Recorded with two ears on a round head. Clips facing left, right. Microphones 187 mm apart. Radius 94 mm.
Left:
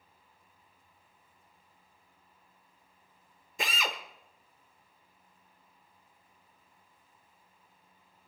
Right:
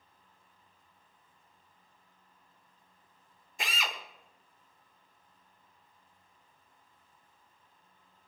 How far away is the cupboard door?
I don't hear a cupboard door.